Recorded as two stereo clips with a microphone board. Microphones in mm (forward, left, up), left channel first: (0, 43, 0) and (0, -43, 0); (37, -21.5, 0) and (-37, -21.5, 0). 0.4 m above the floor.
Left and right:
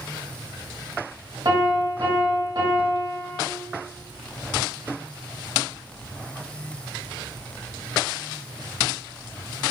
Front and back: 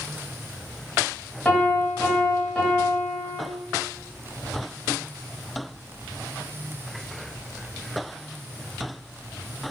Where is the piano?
75° right, 1.4 m.